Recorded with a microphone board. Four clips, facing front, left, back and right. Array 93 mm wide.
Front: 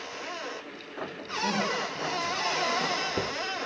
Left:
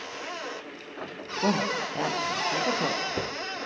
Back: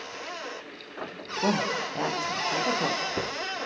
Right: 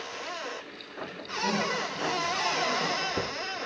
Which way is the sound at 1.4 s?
130° left.